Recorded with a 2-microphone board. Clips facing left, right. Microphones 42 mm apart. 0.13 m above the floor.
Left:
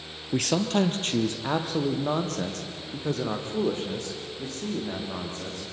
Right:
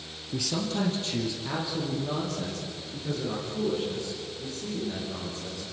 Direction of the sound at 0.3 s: 55° left (ahead or behind).